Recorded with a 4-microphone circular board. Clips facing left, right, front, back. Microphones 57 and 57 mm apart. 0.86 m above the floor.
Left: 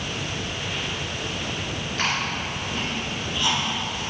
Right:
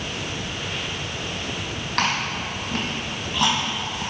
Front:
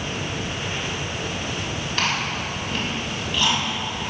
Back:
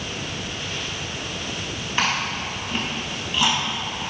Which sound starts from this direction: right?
Chewing, at 2.0 s.